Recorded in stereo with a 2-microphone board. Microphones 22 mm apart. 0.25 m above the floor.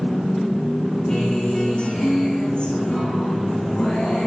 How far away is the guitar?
About 9.5 m.